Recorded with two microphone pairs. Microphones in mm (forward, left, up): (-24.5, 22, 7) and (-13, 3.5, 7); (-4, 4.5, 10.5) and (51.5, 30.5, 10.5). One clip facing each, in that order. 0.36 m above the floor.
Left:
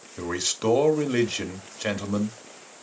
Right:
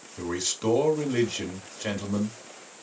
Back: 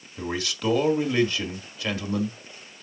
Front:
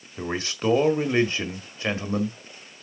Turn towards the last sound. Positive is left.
turn(degrees=70)